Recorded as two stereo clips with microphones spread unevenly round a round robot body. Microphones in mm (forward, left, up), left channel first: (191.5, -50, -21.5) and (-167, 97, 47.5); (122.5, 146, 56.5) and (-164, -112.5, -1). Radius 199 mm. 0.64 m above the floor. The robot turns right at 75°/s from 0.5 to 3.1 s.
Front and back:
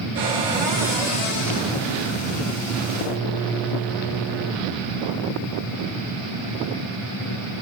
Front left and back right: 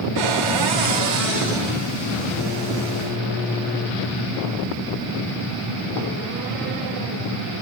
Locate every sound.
0.1 s a cupboard door: 140° right, 3 m; by 1.9 s 35° right, 3 m